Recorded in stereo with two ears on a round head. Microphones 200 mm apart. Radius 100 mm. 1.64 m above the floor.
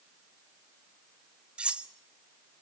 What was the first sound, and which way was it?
Cutlery clinking, 5° right (ahead or behind).